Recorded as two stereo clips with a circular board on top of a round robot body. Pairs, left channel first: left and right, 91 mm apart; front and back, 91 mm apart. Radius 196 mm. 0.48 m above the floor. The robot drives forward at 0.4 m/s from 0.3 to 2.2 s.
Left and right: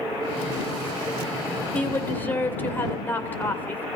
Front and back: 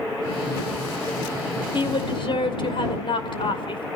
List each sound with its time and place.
1.7 s a woman speaking: 20° left, 3 m